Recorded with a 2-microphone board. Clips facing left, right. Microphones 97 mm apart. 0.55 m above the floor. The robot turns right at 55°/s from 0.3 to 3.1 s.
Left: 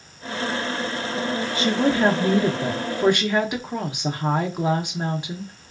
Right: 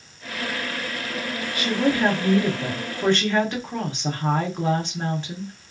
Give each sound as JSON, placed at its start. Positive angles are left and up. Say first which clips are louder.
{"t": 1.6, "sound": "a woman speaking", "louder": "left 1 dB", "side_deg": 25, "distance_m": 0.6}